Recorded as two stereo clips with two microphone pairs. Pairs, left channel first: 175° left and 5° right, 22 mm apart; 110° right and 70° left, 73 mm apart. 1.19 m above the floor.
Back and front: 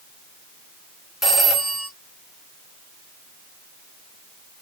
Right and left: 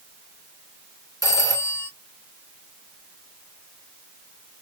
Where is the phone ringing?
80° right, 1.5 m.